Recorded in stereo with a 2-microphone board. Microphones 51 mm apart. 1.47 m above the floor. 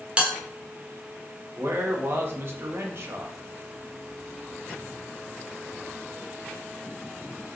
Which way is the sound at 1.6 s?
45° right (ahead or behind).